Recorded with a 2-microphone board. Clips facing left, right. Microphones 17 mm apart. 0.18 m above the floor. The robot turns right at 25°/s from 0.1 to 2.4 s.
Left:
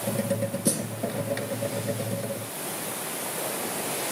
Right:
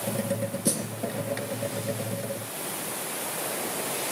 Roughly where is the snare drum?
Centre.